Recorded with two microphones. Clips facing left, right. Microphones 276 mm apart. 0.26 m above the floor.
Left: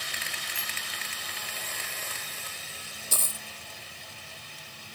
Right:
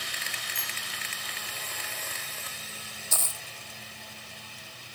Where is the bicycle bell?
30° left (ahead or behind).